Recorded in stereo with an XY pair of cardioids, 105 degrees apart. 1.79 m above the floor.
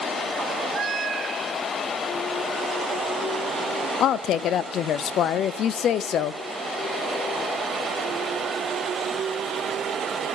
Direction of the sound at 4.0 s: 70° left.